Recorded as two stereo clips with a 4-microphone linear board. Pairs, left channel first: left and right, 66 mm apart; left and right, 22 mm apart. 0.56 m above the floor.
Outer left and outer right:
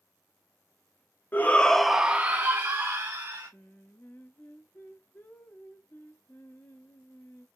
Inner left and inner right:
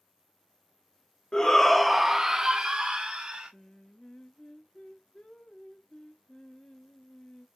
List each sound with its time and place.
1.3 s a shout: 30° left (ahead or behind), 0.7 m; by 3.5 s 65° right (ahead or behind), 1.4 m
3.5 s singing: 35° left (ahead or behind), 0.8 m